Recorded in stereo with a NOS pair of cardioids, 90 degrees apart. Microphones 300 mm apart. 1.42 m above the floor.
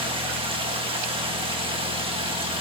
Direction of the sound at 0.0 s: 20° right.